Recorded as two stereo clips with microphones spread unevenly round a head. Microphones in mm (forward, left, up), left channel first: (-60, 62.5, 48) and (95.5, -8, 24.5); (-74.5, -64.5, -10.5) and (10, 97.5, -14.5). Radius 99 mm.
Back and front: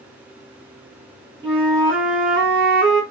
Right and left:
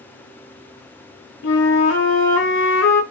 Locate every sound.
1.4 s a flute: 115° right, 0.8 m